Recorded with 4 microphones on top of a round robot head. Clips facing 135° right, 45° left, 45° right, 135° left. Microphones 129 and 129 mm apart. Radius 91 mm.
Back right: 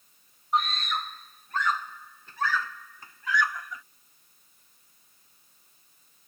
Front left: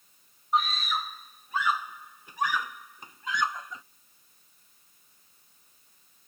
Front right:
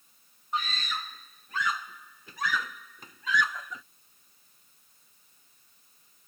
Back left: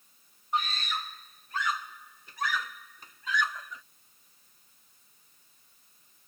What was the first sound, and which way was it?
A scream, 40° right.